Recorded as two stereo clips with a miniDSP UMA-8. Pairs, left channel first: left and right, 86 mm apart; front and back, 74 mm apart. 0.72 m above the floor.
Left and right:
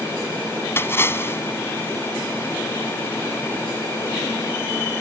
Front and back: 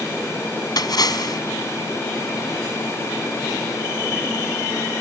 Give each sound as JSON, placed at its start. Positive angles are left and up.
{"t": 0.8, "sound": "a splash", "azimuth_deg": 30}